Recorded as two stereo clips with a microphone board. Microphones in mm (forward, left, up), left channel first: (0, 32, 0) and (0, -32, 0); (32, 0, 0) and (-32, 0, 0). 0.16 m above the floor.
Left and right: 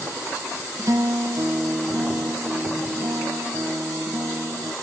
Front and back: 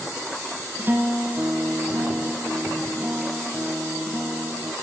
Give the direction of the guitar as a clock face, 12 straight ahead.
4 o'clock.